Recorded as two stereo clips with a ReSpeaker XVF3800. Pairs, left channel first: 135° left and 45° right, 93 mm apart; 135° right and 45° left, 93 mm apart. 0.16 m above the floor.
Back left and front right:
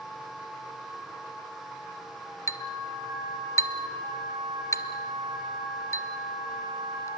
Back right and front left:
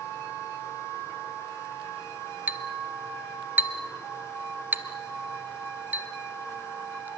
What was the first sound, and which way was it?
A clink, 105° left.